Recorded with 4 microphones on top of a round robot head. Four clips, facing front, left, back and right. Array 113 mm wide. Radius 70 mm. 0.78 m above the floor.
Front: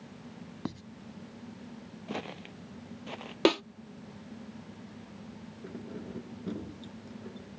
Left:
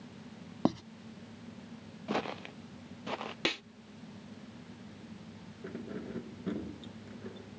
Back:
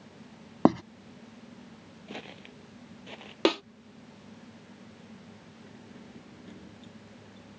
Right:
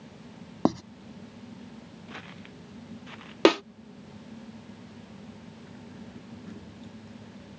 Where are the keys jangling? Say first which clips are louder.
Left 9 dB, front 10 dB; 60° left.